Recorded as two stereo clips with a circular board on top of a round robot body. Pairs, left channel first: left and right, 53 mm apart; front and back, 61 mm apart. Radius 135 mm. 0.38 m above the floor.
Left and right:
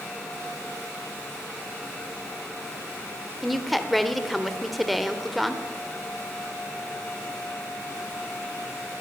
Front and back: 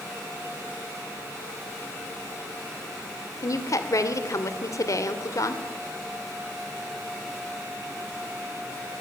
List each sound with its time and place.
3.4 s a woman speaking: straight ahead, 2 m